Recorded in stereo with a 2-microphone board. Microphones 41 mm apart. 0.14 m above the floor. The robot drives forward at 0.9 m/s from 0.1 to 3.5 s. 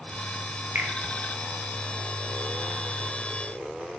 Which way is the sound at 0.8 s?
55° right (ahead or behind).